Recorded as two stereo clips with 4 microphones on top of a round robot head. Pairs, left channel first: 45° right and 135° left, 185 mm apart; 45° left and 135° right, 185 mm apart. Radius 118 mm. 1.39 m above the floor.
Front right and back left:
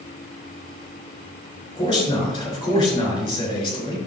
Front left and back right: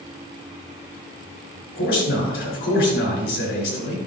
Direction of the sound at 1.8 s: 25° left.